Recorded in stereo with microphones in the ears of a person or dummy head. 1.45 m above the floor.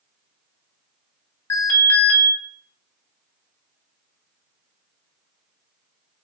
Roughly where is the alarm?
Centre.